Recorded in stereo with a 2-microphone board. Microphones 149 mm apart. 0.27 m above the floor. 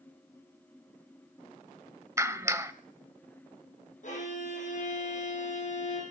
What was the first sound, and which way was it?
A clap, 20° right (ahead or behind).